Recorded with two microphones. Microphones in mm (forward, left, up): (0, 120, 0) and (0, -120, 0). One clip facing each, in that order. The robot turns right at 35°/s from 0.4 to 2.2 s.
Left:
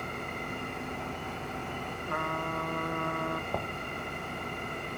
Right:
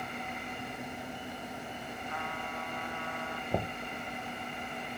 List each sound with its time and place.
0.0 s an engine running: 60° left; by 5.0 s 120° left
2.0 s a trumpet: 65° left (ahead or behind); by 3.4 s 60° left (ahead or behind)
3.5 s knocking: 20° right (ahead or behind)